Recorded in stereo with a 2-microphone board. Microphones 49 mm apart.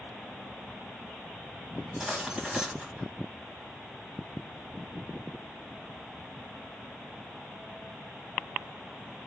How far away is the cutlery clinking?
About 2.0 m.